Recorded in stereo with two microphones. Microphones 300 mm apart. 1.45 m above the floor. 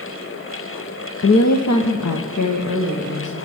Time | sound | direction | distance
1.2 | a woman speaking | 50° left (ahead or behind) | 0.6 m